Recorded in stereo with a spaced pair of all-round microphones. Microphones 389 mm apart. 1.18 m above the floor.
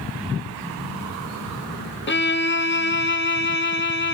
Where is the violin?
30° left (ahead or behind), 1.0 m.